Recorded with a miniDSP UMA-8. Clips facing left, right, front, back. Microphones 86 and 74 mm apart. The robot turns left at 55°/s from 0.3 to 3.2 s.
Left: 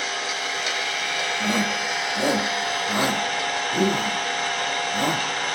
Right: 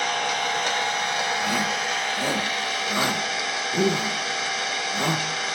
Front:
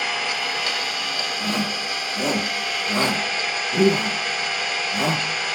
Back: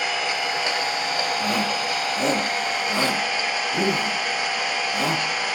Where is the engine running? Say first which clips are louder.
Right 4 dB, back 1 dB; 105° right, 1.1 m; by 5.5 s 100° left, 1.1 m.